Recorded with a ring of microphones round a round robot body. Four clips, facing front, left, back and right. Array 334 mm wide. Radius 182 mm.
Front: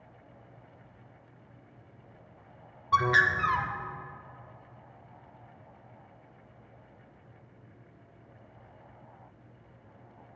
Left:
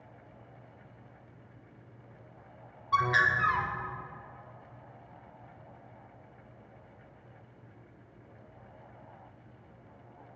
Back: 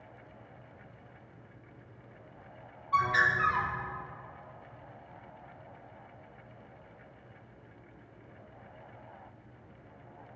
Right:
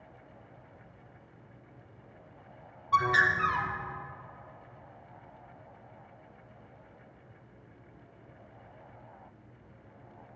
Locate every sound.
2.9 s a bird: 5° left, 1.1 m